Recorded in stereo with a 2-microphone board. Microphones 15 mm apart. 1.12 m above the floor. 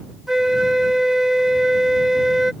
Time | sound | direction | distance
0.3 | a flute | 30° right (ahead or behind) | ?